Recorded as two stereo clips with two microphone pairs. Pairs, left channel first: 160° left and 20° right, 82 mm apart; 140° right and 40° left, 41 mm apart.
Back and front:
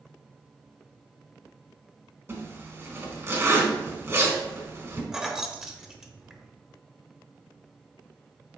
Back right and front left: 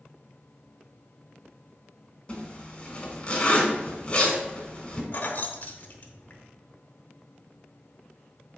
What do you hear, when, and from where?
2.3 s a zipper: 75° right, 1.3 m
5.1 s keys jangling: 100° right, 0.8 m